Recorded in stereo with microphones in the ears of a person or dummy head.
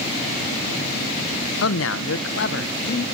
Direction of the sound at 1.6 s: 75° left (ahead or behind).